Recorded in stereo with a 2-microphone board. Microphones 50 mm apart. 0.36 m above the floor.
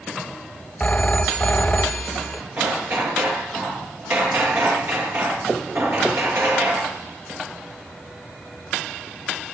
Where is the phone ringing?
25° left (ahead or behind), 1.6 m.